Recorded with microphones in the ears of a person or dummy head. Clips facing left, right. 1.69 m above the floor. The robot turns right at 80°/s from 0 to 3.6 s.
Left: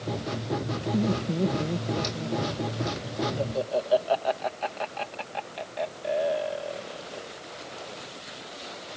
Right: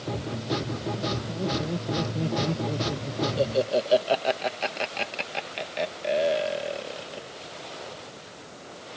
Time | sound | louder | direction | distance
0.9 | laughter | left 5 dB | 70° left (ahead or behind) | ?